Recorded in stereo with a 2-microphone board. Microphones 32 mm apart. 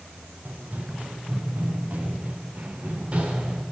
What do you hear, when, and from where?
0.5 s running footsteps: 60° right (ahead or behind), 5.5 m; by 3.6 s 35° right (ahead or behind), 6 m